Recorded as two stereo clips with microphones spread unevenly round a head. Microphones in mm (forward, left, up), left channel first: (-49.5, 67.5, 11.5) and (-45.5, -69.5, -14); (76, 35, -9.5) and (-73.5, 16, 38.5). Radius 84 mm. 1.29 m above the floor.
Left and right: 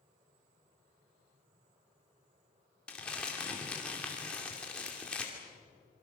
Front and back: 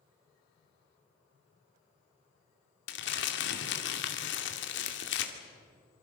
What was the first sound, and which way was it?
Crumpling, 10° left.